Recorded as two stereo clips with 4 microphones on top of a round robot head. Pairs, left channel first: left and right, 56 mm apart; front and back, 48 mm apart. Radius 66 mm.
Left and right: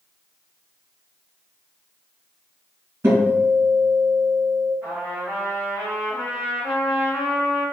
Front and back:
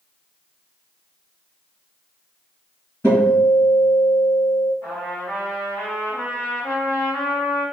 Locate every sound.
3.0 s a guitar: 45° right, 1.7 m
4.8 s a trumpet: 30° right, 1.3 m